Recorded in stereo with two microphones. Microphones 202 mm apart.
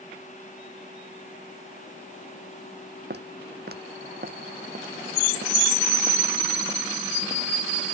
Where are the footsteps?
55° right (ahead or behind); by 8.0 s 25° right (ahead or behind).